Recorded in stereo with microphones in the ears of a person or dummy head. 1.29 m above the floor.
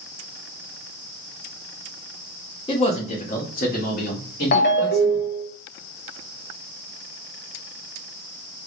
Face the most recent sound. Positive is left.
turn(degrees=55)  # may be behind; listen again after turning